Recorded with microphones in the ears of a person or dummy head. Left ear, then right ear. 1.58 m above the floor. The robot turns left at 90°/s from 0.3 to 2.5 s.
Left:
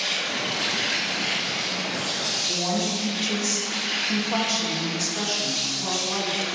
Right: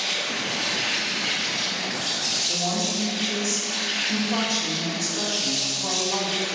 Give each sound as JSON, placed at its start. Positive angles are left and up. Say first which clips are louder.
{"t": 0.0, "sound": "an insect", "louder": "even", "side_deg": -10, "distance_m": 1.0}
{"t": 2.5, "sound": "a woman speaking", "louder": "even", "side_deg": 75, "distance_m": 2.0}